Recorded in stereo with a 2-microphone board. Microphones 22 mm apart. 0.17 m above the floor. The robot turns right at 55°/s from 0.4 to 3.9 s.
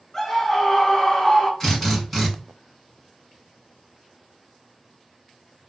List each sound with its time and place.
0.1 s a scream: 20° left (ahead or behind), 1.3 m; by 1.5 s 10° left (ahead or behind), 1.3 m
1.6 s a drill: 170° left, 1.6 m; by 2.3 s 155° right, 1.6 m